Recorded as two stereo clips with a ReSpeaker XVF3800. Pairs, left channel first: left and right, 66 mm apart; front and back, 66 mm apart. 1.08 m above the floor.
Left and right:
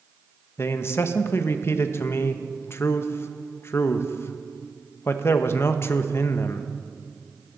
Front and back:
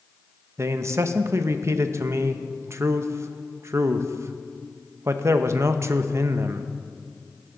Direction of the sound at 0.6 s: 140° left.